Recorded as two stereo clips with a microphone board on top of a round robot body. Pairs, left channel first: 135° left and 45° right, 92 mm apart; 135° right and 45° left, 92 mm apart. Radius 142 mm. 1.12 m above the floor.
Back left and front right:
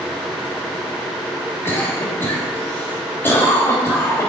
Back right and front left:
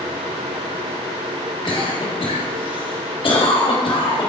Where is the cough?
160° right, 3 m.